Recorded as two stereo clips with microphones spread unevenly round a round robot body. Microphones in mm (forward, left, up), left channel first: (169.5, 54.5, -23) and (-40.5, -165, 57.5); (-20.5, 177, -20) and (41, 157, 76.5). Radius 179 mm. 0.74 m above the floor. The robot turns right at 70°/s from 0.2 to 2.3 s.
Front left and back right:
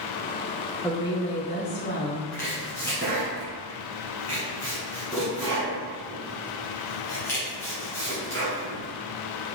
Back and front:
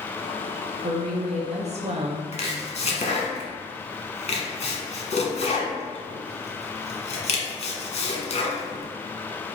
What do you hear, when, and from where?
0.8 s a woman speaking: 25° right, 0.7 m; by 2.2 s 70° left, 0.7 m
2.3 s chopping: 140° left, 1.2 m